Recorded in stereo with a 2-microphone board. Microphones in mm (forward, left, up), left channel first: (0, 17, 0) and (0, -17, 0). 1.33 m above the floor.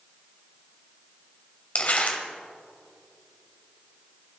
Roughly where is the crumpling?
Left.